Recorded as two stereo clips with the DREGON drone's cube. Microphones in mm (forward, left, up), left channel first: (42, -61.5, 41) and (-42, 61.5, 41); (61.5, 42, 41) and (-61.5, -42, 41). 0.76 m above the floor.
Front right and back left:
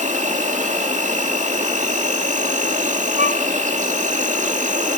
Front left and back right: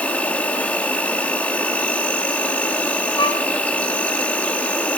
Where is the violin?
90° left, 3 m.